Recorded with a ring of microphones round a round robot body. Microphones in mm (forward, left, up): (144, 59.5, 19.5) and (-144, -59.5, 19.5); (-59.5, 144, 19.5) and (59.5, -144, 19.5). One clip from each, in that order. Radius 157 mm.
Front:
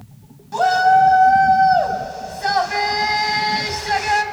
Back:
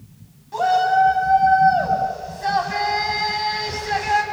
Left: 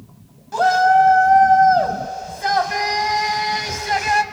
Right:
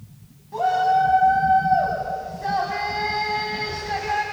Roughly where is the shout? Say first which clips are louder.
Front 3 dB, left 6 dB; left.